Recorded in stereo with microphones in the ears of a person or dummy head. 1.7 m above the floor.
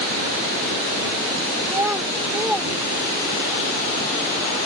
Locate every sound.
1.6 s a child speaking: 15° right (ahead or behind); by 3.6 s 10° left (ahead or behind)